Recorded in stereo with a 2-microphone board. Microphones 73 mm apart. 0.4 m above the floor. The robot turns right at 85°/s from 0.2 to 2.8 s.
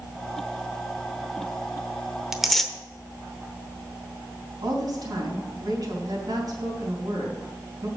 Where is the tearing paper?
5° right (ahead or behind), 0.9 m; by 2.7 s 10° left (ahead or behind), 0.9 m.